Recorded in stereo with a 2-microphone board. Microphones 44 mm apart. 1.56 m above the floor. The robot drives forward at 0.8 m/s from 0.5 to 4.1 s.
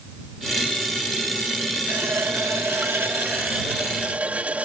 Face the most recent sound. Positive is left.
turn(degrees=-35)  # may be behind; listen again after turning